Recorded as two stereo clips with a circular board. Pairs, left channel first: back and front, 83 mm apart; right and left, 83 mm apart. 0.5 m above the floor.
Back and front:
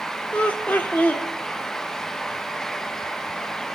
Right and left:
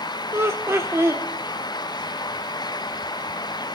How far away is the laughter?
About 1.2 m.